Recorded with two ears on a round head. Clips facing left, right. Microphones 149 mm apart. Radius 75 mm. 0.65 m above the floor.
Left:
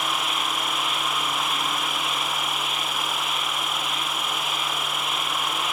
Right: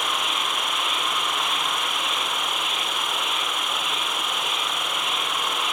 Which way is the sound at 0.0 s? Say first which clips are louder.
Even; 70° right (ahead or behind).